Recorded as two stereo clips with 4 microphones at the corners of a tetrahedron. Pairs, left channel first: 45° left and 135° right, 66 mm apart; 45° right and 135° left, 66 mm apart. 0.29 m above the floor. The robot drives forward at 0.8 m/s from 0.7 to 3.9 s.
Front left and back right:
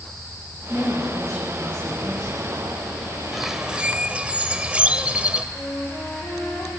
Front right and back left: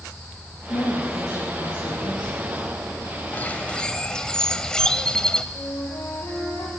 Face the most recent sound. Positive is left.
turn(degrees=-15)